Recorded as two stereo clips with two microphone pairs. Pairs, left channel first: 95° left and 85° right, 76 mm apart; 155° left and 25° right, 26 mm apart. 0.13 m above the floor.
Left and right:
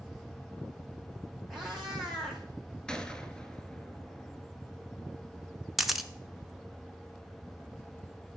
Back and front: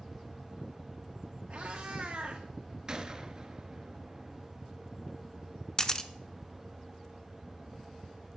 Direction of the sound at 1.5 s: 10° left.